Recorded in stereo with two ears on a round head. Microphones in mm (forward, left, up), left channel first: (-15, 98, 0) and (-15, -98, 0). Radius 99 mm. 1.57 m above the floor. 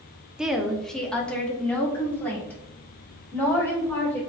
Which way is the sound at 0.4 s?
5° right (ahead or behind).